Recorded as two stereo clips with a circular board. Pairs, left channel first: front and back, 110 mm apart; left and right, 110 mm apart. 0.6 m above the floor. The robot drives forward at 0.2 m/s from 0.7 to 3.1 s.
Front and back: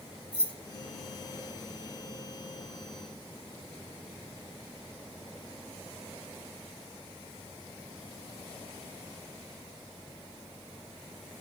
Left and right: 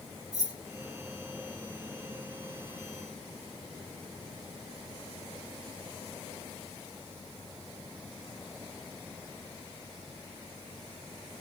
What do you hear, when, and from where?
0.3 s keys jangling: 70° left, 1.7 m